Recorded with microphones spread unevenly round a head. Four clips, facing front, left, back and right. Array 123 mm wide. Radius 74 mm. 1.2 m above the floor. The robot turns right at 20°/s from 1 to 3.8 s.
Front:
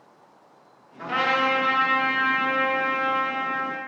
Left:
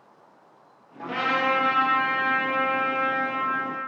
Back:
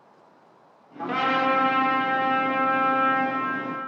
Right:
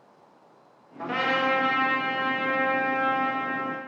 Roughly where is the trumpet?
Behind.